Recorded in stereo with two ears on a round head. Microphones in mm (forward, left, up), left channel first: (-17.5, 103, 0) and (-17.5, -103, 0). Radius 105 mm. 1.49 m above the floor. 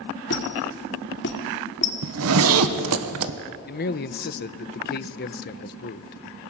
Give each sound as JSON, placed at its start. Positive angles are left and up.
{"t": 0.3, "sound": "a squeak", "side_deg": 50, "distance_m": 2.0}
{"t": 2.0, "sound": "a zipper", "side_deg": -75, "distance_m": 1.4}
{"t": 3.7, "sound": "a man speaking", "side_deg": 45, "distance_m": 0.8}